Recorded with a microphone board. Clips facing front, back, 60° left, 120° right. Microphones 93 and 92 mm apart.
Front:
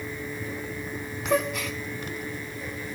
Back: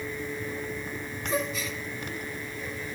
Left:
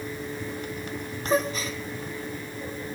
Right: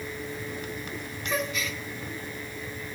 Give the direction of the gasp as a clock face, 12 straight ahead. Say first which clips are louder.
Front 5 dB, left 5 dB; 12 o'clock.